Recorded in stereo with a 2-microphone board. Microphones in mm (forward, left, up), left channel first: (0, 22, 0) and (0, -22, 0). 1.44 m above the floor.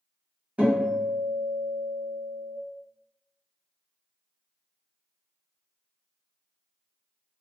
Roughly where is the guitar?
Right.